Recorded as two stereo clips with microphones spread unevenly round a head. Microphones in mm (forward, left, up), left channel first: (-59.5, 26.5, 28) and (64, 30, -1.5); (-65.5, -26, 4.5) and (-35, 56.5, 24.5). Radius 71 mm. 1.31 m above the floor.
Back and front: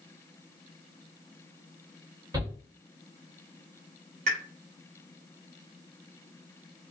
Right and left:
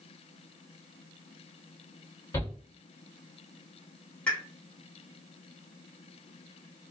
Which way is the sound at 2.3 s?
55° right.